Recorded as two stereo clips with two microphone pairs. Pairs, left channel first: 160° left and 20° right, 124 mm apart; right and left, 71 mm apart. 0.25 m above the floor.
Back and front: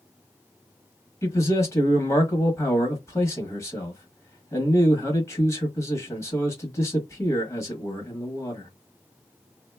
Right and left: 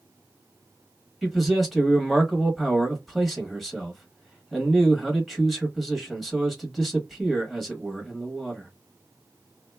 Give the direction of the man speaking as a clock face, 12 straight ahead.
6 o'clock.